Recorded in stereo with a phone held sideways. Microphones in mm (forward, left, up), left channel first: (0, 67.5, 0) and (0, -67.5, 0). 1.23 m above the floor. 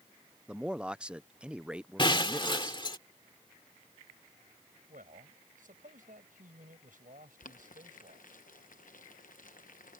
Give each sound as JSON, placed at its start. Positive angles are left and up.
{"t": 0.5, "sound": "a man speaking", "side_deg": -5}
{"t": 2.0, "sound": "breaking glass", "side_deg": 35}
{"t": 4.9, "sound": "a man speaking", "side_deg": -75}
{"t": 7.4, "sound": "boiling", "side_deg": 70}